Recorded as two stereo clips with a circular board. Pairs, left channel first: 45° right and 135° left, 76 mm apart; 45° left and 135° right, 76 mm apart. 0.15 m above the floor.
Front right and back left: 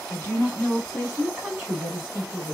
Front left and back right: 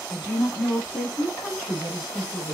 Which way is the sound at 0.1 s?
20° right.